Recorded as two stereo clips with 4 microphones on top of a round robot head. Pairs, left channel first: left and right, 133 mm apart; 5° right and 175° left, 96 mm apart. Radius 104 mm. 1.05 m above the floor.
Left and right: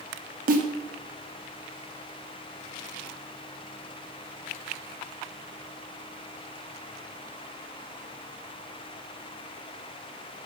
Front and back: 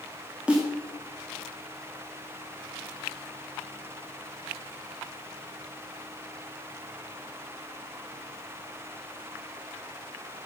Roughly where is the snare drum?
Right.